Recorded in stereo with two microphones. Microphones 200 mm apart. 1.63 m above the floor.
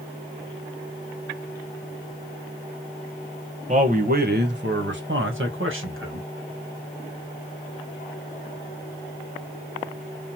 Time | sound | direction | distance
3.7 | a man speaking | 35° right (ahead or behind) | 1.0 m